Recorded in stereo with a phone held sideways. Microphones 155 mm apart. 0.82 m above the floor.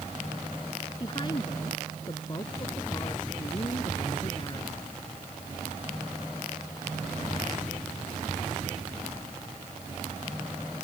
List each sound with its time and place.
1.0 s a woman speaking: 30° left (ahead or behind)